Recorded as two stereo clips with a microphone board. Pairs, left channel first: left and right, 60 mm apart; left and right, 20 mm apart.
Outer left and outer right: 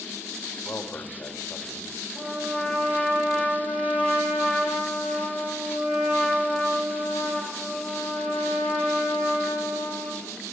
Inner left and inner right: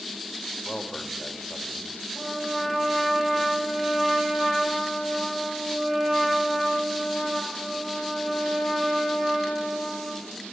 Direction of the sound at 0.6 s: 40° left (ahead or behind).